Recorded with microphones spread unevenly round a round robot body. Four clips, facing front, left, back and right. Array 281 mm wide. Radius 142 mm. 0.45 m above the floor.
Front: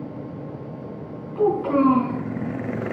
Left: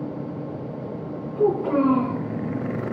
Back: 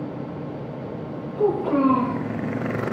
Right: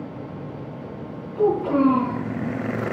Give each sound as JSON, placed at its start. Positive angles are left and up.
{"t": 1.4, "sound": "a child speaking", "azimuth_deg": -10, "distance_m": 3.0}